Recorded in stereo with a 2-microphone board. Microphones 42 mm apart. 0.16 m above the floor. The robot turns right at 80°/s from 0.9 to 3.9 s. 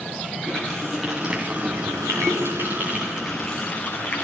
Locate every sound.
0.4 s a running tap: 170° left, 9 m; by 4.2 s 50° left, 9 m